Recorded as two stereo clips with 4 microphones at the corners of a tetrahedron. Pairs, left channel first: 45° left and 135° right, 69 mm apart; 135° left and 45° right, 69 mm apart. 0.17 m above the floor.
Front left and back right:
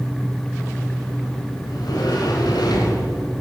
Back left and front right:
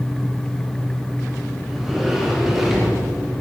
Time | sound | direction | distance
1.7 | a sliding door | 40° left | 9.5 m